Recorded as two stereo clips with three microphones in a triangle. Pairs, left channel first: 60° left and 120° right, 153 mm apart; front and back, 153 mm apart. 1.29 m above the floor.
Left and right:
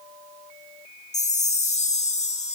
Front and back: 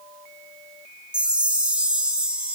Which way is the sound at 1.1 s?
95° left.